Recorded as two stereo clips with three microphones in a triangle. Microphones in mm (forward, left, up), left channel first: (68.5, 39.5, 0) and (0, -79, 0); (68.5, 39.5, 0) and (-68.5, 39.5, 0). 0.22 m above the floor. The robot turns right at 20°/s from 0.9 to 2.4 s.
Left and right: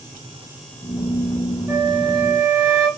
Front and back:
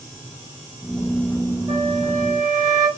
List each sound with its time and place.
1.7 s a flute: 150° right, 1.5 m; by 2.9 s 135° right, 1.5 m